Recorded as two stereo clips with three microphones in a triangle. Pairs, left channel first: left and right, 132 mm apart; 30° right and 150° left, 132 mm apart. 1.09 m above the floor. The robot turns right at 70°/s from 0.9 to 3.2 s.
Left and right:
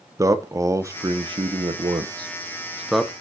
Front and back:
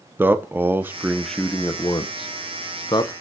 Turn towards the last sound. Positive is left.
turn(degrees=20)